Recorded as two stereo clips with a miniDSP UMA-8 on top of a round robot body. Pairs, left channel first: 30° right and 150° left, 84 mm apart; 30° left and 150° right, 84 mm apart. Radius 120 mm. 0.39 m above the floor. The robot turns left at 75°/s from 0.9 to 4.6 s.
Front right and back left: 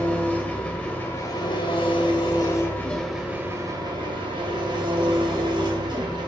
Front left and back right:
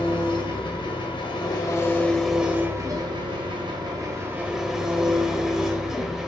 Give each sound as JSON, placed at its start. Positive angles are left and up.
{"t": 0.0, "sound": "an engine running", "azimuth_deg": 40, "distance_m": 2.0}